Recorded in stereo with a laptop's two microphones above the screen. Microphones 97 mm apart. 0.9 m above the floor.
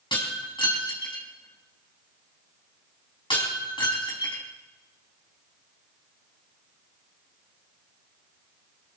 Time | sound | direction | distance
0.1 | breaking glass | 55° left (ahead or behind) | 4.5 m